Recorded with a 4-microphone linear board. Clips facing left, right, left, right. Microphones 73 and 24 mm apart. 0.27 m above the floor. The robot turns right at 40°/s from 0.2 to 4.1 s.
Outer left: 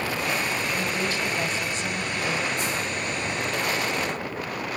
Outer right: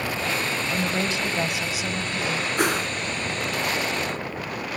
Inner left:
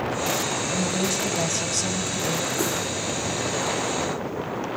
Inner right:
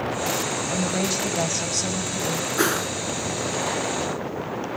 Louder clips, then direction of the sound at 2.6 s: Outer right 5 dB, inner right 3 dB; 70° right (ahead or behind).